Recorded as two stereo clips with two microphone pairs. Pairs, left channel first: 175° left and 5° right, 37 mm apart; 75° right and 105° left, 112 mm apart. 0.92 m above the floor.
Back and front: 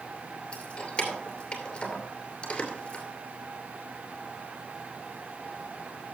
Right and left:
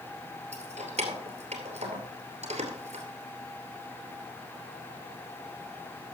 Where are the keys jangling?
110° left, 2.5 m.